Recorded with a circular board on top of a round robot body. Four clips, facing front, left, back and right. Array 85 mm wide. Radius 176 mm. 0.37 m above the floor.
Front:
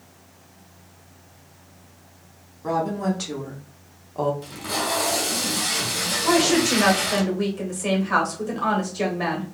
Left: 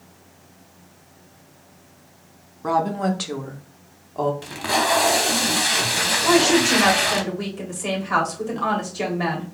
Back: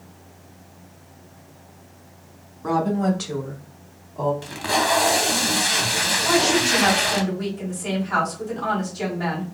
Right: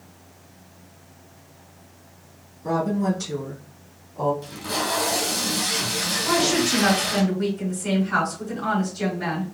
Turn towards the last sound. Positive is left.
turn(degrees=50)